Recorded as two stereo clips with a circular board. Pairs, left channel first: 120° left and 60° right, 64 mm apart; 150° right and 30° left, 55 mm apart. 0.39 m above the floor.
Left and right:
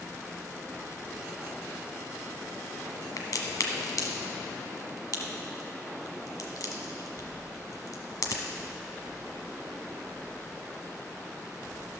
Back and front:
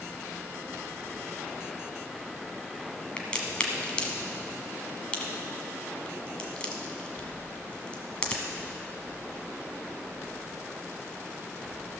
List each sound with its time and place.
3.2 s a crack: 140° left, 1.3 m